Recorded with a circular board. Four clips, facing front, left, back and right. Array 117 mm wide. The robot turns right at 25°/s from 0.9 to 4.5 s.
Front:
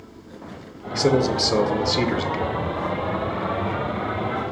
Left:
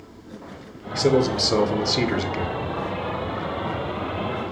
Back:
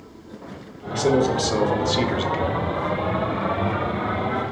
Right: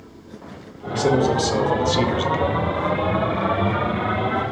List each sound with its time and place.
0.9 s a man speaking: 35° left, 0.8 m; by 2.6 s 75° left, 0.8 m